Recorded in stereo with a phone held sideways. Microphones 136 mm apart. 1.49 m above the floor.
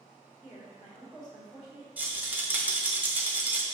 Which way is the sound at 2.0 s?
10° right (ahead or behind).